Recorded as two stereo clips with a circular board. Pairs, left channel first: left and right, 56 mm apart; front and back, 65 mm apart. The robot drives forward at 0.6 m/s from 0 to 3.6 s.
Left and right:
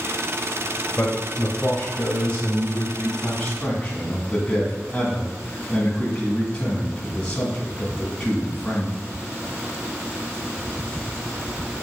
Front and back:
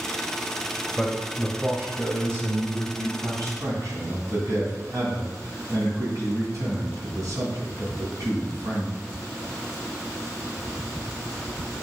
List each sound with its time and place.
1.0 s a man speaking: 100° left, 1.0 m; by 8.9 s 165° left, 1.9 m